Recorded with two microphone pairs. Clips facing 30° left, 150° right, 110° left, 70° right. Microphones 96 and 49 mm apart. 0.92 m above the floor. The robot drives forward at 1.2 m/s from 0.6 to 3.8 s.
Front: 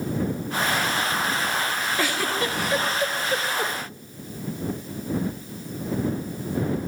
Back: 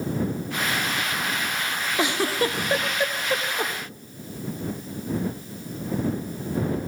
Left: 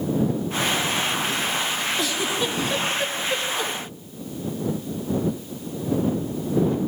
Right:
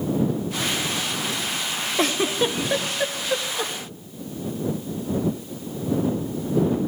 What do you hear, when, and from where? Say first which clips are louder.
2.0 s a giggle: back 4 dB, right 3 dB; 85° right, 1.3 m; by 3.7 s 150° right, 2.5 m